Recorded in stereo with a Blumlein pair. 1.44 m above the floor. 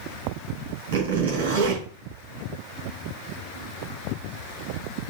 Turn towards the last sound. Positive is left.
turn(degrees=-55)